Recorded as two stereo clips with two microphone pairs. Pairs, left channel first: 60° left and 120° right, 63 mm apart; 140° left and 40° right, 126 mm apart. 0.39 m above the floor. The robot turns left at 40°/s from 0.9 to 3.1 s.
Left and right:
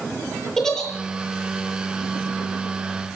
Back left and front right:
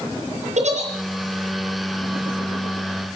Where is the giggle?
25° right, 7.5 m.